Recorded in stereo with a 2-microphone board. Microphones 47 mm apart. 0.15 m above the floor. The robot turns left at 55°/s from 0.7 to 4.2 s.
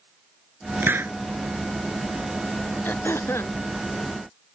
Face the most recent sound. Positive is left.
turn(degrees=60)